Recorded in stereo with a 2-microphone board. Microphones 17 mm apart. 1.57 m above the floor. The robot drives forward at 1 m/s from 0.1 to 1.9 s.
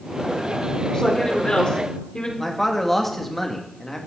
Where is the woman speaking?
45° left (ahead or behind), 5 m; by 2.3 s 55° left (ahead or behind), 4 m.